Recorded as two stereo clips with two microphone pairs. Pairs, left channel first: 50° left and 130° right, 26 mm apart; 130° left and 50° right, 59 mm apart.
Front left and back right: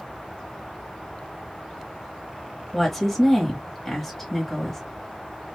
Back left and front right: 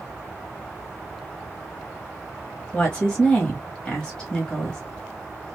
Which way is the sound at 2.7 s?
95° left.